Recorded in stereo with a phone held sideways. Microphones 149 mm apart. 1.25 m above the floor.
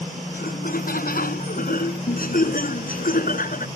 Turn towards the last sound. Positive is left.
turn(degrees=70)  # may be behind; listen again after turning